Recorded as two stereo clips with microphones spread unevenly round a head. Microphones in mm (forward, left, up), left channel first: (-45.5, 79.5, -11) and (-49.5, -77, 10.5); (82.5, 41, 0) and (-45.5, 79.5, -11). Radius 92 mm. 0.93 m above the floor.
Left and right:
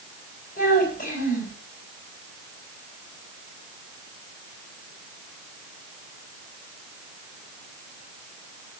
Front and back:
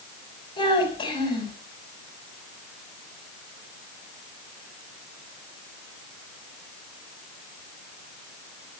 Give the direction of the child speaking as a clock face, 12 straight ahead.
11 o'clock.